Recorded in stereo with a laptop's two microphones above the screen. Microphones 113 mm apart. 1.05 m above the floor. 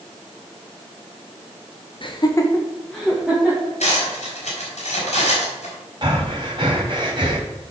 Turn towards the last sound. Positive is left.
turn(degrees=-45)  # may be behind; listen again after turning